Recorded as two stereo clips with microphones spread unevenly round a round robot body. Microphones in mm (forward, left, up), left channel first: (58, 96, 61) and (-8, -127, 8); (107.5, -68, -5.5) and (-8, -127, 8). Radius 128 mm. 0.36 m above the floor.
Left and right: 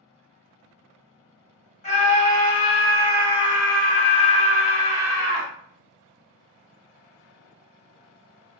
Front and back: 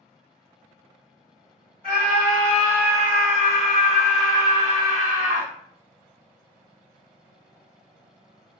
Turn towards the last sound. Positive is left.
turn(degrees=55)